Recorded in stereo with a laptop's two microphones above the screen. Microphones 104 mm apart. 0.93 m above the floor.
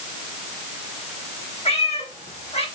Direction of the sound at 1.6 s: 80° left.